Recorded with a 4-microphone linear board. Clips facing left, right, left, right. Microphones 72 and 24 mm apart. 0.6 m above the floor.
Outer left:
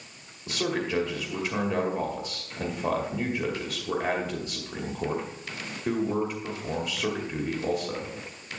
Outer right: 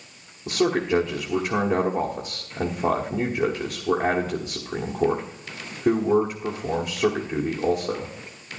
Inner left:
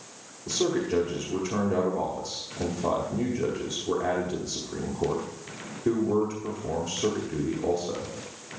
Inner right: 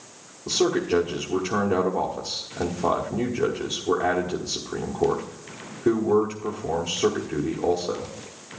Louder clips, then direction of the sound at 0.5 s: Outer right 7 dB, inner right 4 dB; 55° right (ahead or behind).